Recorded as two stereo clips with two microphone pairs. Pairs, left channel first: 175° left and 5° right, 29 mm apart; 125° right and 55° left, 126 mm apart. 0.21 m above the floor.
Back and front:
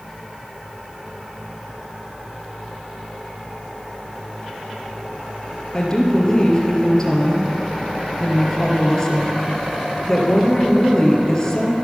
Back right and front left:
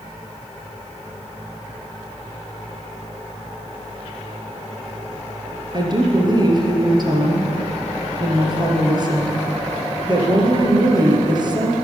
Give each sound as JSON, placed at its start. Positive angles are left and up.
{"t": 5.7, "sound": "a woman speaking", "azimuth_deg": 105, "distance_m": 3.0}